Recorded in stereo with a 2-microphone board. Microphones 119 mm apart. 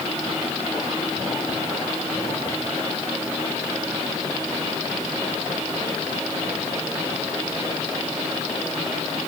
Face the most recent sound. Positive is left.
No sound to turn to.